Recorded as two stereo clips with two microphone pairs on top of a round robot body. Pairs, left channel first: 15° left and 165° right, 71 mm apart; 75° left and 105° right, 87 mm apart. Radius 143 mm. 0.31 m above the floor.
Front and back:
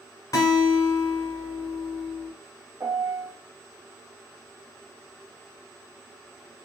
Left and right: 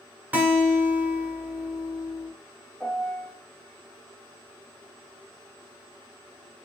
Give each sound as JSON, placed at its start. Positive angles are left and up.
{"t": 0.3, "sound": "a guitar", "azimuth_deg": -30, "distance_m": 1.1}
{"t": 2.8, "sound": "a piano", "azimuth_deg": 165, "distance_m": 1.1}